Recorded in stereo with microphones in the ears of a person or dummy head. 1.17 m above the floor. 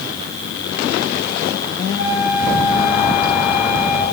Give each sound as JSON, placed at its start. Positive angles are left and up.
{"t": 2.0, "sound": "a flute", "side_deg": 85, "distance_m": 9.5}